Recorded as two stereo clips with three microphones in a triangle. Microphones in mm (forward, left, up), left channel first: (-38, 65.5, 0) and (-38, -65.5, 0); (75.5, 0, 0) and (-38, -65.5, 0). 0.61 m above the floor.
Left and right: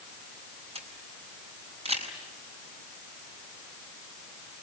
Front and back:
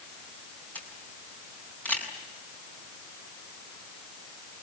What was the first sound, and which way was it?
A camera shutter, 50° right.